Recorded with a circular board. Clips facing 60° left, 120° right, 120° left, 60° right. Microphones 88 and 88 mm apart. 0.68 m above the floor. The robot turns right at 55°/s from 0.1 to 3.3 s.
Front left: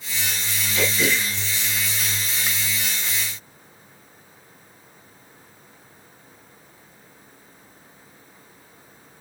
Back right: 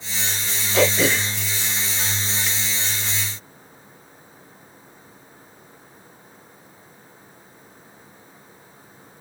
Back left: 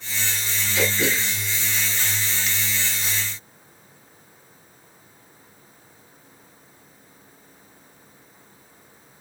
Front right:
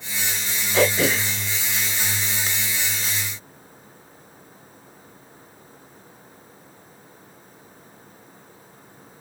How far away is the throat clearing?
About 0.8 m.